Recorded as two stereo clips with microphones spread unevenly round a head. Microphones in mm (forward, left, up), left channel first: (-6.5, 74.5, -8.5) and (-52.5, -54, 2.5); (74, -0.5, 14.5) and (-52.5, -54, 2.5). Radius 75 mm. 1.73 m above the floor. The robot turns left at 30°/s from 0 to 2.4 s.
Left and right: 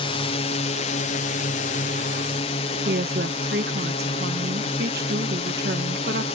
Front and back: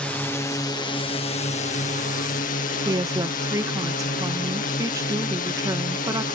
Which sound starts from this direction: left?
A drone, at 0.0 s.